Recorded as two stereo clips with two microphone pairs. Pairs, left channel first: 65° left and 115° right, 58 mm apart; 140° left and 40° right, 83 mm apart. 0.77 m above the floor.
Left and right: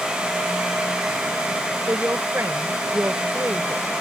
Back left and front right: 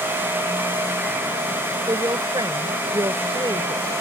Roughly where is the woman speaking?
Right.